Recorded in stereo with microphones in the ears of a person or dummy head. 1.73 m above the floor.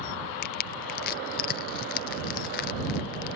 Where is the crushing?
55° left (ahead or behind).